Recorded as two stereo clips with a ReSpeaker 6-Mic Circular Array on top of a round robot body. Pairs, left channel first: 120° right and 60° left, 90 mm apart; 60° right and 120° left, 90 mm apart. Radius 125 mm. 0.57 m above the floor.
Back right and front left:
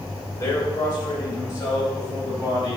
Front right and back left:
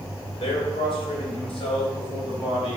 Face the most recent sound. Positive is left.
turn(degrees=-75)